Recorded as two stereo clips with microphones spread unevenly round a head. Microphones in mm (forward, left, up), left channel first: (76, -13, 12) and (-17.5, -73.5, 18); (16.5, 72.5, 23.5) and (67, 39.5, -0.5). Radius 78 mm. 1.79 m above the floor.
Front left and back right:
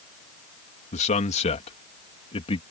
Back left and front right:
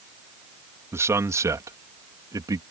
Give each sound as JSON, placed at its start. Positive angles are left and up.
{"t": 0.9, "sound": "a man speaking", "azimuth_deg": 15}